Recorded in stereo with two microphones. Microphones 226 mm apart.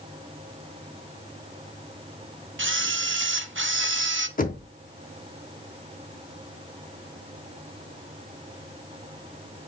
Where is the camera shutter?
60° right (ahead or behind), 0.6 m.